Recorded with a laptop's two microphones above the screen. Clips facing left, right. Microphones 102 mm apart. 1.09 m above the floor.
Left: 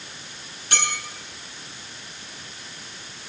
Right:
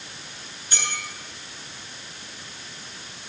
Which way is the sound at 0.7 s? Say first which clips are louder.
Left 5 dB; 75° left (ahead or behind).